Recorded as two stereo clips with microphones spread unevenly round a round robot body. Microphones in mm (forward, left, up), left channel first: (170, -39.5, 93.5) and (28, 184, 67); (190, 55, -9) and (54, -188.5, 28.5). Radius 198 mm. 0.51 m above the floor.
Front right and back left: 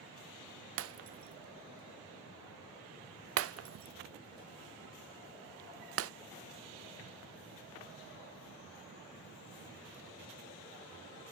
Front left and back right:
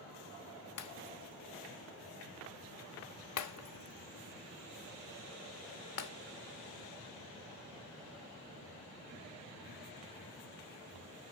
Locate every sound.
0.8 s breaking glass: 90° left, 0.7 m